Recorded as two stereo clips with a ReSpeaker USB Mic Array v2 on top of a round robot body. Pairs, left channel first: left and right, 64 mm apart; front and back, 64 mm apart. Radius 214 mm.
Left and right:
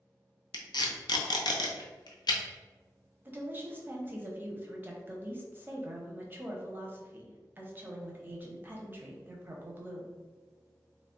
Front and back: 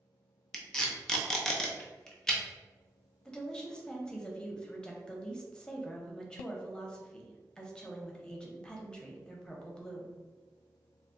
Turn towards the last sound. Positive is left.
turn(degrees=-65)